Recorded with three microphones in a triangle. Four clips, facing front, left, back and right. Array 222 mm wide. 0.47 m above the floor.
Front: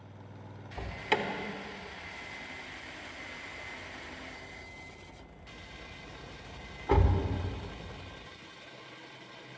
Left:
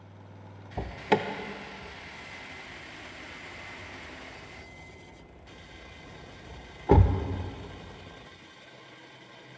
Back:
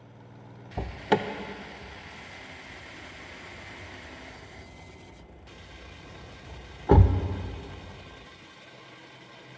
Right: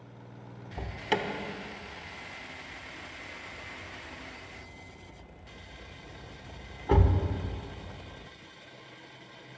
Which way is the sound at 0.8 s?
140° left.